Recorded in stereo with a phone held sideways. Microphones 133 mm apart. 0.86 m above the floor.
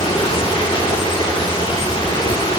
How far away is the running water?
About 2.5 m.